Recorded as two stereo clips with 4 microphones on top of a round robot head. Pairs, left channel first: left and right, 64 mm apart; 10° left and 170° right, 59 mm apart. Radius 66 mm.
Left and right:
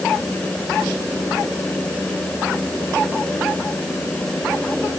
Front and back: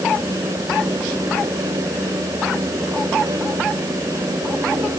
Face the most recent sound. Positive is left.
No sound to turn to.